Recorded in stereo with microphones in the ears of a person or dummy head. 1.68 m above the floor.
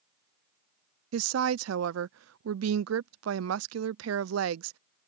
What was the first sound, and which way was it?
A woman speaking, 80° right.